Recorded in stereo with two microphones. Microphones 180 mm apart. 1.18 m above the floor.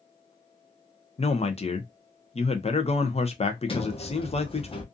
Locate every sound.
1.2 s a man speaking: 35° left (ahead or behind), 0.6 m
3.7 s a sliding door: 30° left (ahead or behind), 0.7 m